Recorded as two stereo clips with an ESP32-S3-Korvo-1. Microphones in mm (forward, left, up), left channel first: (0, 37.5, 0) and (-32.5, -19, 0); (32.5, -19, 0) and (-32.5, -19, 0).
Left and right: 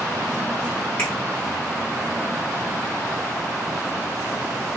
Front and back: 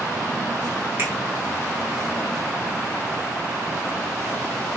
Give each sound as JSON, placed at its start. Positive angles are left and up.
{"t": 1.0, "sound": "a finger snap", "azimuth_deg": 130, "distance_m": 1.4}